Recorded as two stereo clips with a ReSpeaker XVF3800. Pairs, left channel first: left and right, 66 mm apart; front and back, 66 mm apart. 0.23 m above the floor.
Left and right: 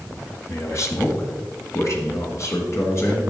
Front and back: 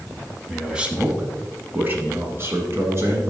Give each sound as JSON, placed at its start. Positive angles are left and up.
{"t": 0.5, "sound": "a man speaking", "azimuth_deg": 100, "distance_m": 1.3}